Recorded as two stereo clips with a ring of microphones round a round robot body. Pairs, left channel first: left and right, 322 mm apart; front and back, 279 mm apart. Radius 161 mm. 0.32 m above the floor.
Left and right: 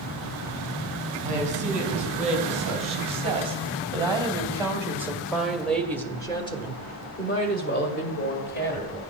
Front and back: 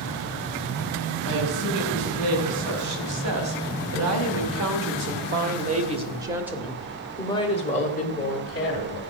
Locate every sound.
1.2 s a woman speaking: 160° right, 3.5 m; by 9.0 s 40° left, 2 m